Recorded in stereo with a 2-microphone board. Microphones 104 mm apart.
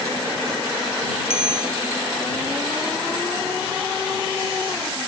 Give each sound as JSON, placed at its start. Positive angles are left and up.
{"t": 1.3, "sound": "a bicycle bell", "side_deg": 70}